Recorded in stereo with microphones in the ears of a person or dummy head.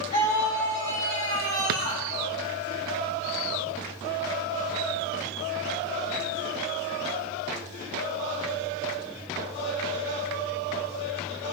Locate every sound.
0.1 s a scream: 35° left (ahead or behind), 4 m; by 2.0 s 50° left (ahead or behind), 4.5 m
1.7 s a drawer: 55° right (ahead or behind), 0.9 m